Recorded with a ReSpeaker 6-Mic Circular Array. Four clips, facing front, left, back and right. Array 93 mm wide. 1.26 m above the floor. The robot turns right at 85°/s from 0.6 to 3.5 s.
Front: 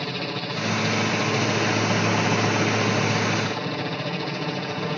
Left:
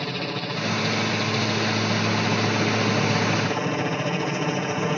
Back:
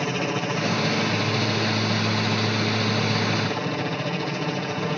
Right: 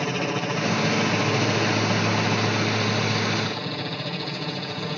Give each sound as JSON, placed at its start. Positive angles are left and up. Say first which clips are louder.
{"t": 0.0, "sound": "a helicopter", "louder": "right 3 dB, back 4 dB", "azimuth_deg": -135}